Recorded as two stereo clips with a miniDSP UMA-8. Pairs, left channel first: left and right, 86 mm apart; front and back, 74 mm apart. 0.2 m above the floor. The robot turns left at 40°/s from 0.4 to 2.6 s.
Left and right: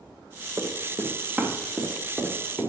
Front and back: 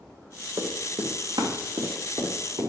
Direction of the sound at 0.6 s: 145° right.